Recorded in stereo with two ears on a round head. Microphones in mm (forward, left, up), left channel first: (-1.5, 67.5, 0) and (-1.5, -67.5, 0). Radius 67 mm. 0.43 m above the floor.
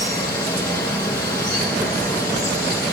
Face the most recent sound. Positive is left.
turn(degrees=20)  # may be behind; listen again after turning